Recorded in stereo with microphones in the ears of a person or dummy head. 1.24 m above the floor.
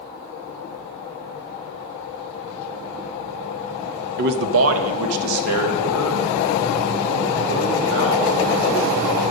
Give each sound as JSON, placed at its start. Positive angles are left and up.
{"t": 4.2, "sound": "a man speaking", "side_deg": -55, "distance_m": 0.9}